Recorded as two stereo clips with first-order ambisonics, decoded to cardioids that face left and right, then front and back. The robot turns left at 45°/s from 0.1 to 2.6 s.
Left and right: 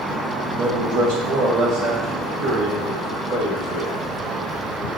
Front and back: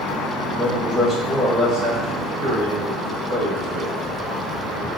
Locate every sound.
0.5 s a man speaking: 70° right, 1.6 m; by 4.9 s 165° right, 1.6 m